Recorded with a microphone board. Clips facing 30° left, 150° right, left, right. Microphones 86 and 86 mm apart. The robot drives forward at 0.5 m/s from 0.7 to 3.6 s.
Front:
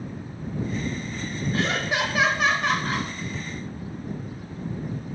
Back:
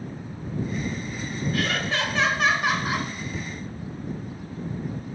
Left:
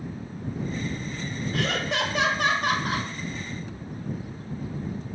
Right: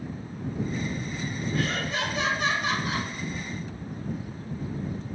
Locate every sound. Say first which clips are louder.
1.5 s laughter: front 2 dB, left 3 dB; 90° left, 0.8 m; by 3.1 s 135° left, 1.1 m